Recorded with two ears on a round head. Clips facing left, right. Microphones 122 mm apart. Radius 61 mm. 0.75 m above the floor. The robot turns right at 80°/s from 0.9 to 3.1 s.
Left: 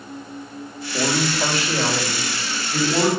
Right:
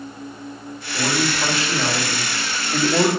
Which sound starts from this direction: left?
A man speaking, at 0.9 s.